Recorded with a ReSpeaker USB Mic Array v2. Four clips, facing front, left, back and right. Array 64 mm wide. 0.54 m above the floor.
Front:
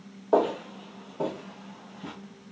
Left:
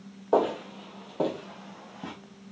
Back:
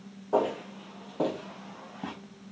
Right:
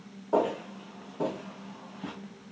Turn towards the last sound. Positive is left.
turn(degrees=155)